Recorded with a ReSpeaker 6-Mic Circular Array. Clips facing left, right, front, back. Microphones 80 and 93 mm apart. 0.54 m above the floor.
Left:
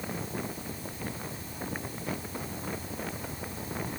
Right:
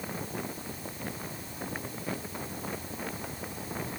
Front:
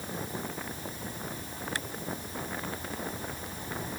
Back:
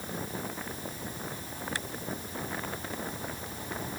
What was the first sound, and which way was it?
Only background noise.